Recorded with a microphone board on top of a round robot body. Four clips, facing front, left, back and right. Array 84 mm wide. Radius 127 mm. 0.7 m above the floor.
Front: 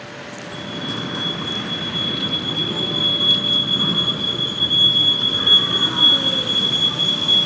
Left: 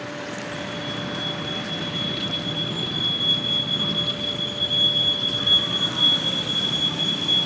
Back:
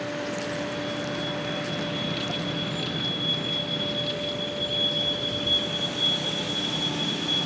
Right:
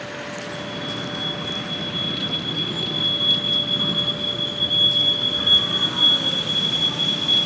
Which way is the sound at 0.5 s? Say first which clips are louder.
Even, front 1 dB; 5° right.